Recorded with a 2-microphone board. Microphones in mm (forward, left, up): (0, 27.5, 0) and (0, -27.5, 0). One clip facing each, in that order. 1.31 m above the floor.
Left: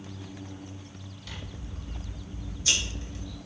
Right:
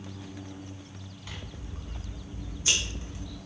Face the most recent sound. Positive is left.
turn(degrees=-35)  # may be behind; listen again after turning